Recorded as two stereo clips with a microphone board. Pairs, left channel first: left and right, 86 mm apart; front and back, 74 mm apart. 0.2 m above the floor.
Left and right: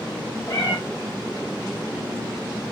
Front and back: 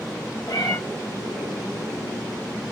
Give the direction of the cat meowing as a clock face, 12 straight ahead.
11 o'clock.